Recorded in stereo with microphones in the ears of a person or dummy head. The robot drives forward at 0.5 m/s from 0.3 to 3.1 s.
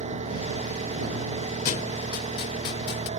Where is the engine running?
35° right (ahead or behind); by 3.2 s 30° right (ahead or behind).